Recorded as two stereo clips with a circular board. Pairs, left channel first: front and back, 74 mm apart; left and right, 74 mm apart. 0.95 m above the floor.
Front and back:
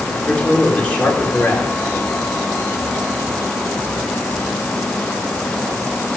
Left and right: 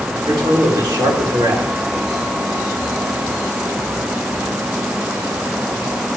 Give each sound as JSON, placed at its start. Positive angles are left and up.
{"t": 0.3, "sound": "a man speaking", "azimuth_deg": -70, "distance_m": 3.0}